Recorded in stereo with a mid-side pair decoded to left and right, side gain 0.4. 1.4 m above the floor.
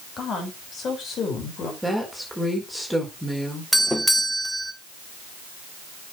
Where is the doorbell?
10° left, 1.4 m.